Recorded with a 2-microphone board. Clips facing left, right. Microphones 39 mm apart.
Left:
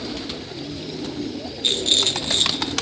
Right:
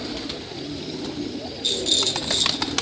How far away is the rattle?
About 0.7 m.